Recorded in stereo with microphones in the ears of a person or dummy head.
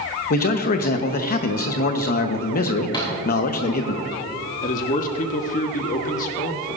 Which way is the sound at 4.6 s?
40° left (ahead or behind).